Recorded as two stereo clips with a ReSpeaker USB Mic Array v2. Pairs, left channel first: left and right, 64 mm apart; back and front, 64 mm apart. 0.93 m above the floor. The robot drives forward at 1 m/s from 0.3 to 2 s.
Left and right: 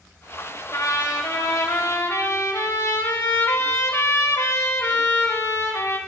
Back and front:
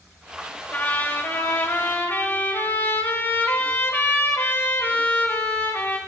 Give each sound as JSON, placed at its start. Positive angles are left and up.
{"t": 0.7, "sound": "a trumpet", "azimuth_deg": 120, "distance_m": 6.0}